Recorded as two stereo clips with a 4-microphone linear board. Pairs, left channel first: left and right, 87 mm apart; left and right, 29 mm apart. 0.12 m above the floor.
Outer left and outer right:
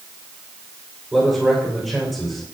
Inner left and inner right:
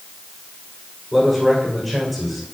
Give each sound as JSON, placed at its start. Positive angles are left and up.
{"t": 1.1, "sound": "a man speaking", "side_deg": 5, "distance_m": 6.5}